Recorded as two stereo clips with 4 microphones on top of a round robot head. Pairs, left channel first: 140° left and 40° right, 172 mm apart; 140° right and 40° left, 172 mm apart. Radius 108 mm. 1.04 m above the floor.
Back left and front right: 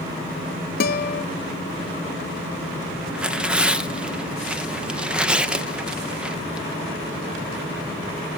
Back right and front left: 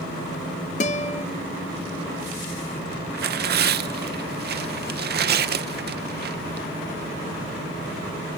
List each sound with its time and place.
0.8 s a guitar: 175° left, 0.7 m
3.1 s tearing paper: 40° left, 0.9 m